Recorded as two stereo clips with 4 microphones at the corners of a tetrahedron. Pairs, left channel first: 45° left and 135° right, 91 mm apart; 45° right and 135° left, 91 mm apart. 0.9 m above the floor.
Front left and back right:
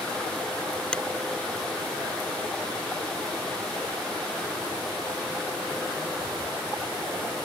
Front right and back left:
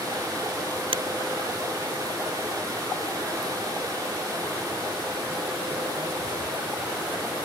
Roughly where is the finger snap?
Behind left.